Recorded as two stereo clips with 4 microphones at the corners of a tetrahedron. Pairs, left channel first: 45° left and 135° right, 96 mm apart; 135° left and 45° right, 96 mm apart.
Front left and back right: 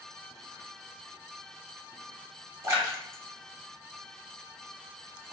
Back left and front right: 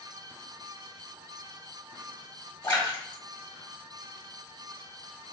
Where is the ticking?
No ticking in this recording.